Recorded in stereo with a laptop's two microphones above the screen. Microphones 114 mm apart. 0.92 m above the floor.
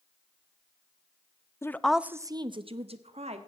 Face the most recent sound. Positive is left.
turn(degrees=-70)  # may be behind; listen again after turning